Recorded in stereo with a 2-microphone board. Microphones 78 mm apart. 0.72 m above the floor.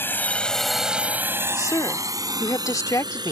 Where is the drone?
30° left (ahead or behind); by 3.3 s 65° right (ahead or behind).